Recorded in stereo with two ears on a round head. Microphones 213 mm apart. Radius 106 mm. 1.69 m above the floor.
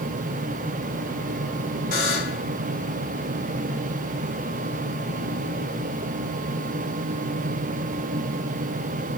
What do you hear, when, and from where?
1.9 s a buzzer: 55° left (ahead or behind), 2.5 m